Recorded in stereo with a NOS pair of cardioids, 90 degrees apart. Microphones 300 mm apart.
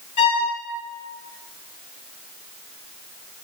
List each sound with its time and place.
0.2 s a violin: 65° left, 1.8 m